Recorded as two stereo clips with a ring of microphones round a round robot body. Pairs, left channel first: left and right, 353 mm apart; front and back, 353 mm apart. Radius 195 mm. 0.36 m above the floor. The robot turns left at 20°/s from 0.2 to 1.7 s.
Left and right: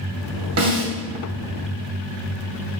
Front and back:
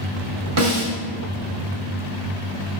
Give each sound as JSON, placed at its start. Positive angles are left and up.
{"t": 0.6, "sound": "a snare drum", "azimuth_deg": -140, "distance_m": 2.5}